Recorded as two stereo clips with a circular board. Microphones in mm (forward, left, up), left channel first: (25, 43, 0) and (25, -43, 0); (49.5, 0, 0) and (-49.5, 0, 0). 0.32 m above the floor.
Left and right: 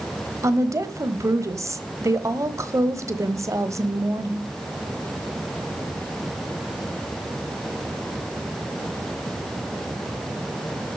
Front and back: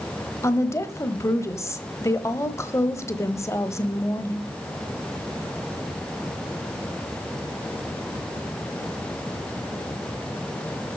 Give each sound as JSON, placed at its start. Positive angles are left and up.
{"t": 0.4, "sound": "a woman speaking", "azimuth_deg": -50, "distance_m": 1.3}